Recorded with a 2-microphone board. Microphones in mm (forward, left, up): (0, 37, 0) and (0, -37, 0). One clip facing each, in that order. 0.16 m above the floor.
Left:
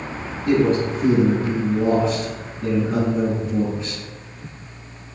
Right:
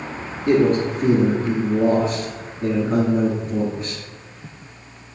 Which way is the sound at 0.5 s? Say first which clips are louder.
Right 1 dB; 40° right (ahead or behind).